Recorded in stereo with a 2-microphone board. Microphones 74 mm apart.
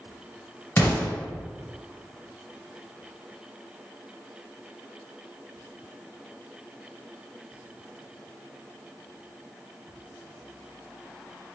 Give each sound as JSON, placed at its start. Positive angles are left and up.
{"t": 0.8, "sound": "an explosion", "side_deg": 30, "distance_m": 1.6}